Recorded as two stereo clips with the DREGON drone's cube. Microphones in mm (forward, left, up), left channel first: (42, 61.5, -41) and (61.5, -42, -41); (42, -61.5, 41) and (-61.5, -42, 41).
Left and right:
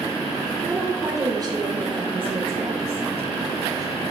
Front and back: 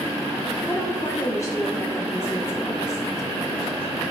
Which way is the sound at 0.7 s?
10° right.